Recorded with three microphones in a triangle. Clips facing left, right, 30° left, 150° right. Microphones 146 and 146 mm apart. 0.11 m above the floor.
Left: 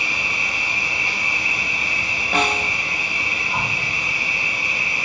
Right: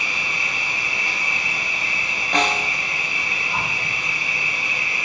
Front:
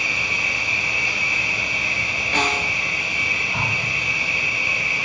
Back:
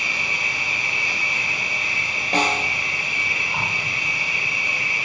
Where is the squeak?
No squeak in this recording.